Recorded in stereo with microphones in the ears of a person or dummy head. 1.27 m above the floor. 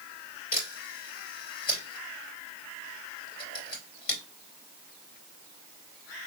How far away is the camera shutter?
About 3 m.